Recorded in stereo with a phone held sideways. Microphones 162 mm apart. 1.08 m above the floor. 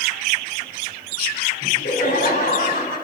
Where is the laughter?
60° left (ahead or behind), 4.5 m; by 3.0 s 65° left (ahead or behind), 5.5 m.